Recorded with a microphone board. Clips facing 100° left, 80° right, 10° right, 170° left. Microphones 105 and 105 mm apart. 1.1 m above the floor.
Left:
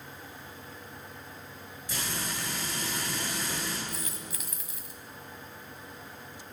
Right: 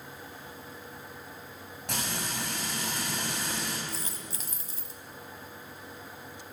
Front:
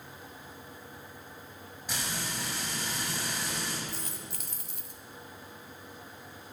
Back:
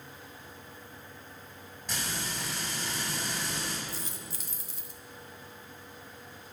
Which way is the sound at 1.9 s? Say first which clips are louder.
Right 1 dB, even; 90° right.